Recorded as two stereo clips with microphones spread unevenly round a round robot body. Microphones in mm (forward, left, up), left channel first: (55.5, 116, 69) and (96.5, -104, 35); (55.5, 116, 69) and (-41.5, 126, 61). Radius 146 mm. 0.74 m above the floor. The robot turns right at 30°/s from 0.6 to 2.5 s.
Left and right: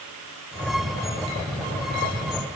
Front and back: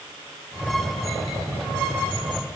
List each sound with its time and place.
Only background noise.